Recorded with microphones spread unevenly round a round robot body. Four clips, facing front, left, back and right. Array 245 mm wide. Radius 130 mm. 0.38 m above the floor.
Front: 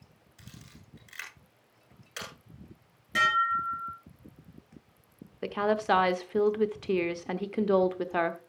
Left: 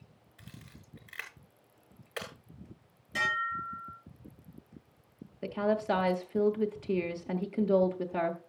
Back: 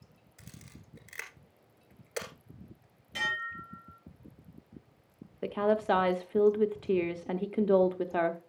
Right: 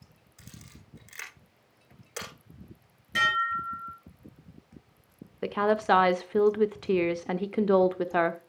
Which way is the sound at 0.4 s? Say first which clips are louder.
Right 1 dB, front 1 dB; 165° right.